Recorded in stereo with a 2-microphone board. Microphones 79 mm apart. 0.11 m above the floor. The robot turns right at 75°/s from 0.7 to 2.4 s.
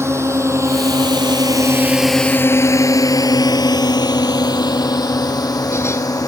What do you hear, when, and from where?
0.0 s a drone: 35° right (ahead or behind); by 6.3 s 55° left (ahead or behind)